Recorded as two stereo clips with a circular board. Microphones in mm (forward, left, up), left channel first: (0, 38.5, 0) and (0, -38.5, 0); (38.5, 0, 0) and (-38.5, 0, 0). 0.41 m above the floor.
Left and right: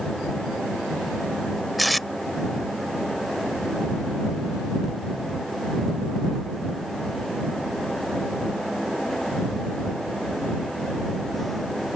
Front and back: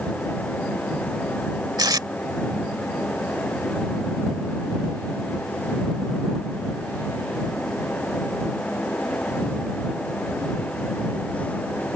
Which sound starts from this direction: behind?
Tape being pulled, at 1.8 s.